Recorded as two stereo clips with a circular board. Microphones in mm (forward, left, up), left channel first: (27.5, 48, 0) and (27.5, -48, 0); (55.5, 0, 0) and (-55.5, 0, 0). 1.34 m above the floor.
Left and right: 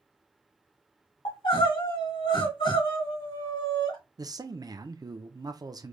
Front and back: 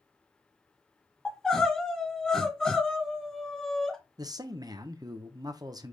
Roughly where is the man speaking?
Behind right.